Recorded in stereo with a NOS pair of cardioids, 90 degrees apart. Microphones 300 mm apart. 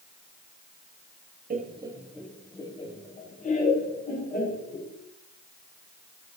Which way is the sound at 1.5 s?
30° right.